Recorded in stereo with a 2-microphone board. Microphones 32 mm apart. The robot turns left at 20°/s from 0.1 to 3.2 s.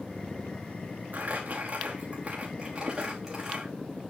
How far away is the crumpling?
About 4 m.